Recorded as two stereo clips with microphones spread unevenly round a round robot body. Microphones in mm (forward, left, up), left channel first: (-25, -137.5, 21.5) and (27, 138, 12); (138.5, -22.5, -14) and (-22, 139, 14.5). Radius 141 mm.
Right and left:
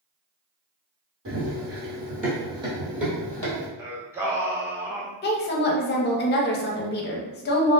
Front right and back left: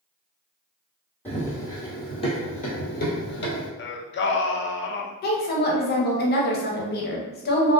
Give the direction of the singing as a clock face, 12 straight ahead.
12 o'clock.